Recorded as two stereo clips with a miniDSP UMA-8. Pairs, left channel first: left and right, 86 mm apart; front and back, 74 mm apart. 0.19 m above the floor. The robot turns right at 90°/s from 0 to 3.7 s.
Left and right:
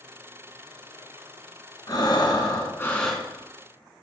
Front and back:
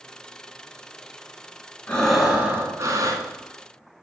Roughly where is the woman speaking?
No woman speaking in this recording.